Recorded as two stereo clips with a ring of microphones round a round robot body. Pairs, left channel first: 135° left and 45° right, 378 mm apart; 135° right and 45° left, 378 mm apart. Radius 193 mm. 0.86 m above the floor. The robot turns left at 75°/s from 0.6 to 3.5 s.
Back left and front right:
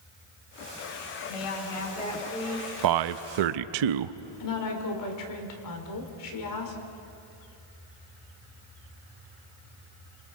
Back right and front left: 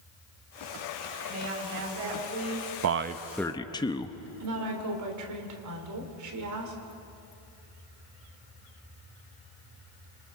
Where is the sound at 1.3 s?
125° left, 5 m; by 2.7 s 20° left, 5 m.